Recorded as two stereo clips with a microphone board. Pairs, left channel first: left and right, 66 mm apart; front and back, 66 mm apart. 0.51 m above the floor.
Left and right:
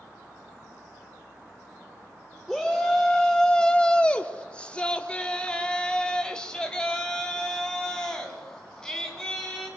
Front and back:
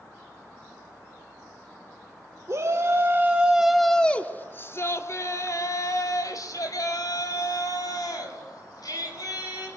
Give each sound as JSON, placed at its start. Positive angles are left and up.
{"t": 2.5, "sound": "a shout", "azimuth_deg": 175, "distance_m": 1.7}